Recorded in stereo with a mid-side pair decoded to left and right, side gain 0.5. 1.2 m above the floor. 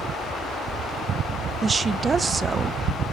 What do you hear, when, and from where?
1.6 s a woman speaking: 30° right, 0.7 m